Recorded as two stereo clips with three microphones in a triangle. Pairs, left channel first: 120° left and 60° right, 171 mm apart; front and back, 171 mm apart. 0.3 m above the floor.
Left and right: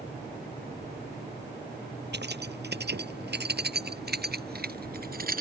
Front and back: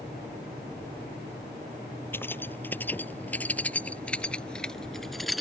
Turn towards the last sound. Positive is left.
turn(degrees=-90)